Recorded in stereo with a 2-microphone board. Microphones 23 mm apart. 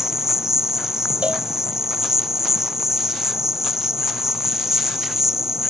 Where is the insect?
20° right (ahead or behind).